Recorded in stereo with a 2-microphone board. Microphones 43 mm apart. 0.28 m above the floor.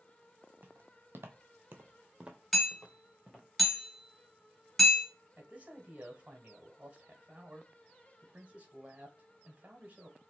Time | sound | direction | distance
0.6 | footsteps | 50° right (ahead or behind) | 1.0 m
2.5 | hammering | 5° left (ahead or behind) | 2.5 m
5.4 | a man speaking | 25° right (ahead or behind) | 0.9 m